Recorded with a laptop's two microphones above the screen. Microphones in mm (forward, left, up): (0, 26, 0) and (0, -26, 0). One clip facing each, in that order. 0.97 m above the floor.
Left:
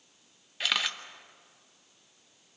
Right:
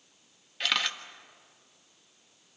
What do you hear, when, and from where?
0.6 s a camera shutter: 5° left (ahead or behind), 1.2 m